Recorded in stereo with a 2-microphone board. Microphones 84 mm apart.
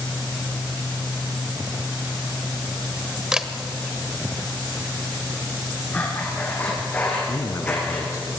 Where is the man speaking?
35° left (ahead or behind), 3 m.